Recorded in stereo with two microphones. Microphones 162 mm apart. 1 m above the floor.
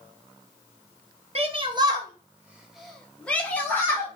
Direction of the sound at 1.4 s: 40° right (ahead or behind).